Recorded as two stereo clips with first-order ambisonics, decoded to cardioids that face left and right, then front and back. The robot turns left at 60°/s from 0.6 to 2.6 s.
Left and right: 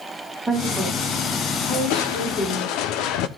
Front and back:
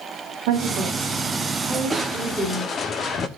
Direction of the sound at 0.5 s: 175° right.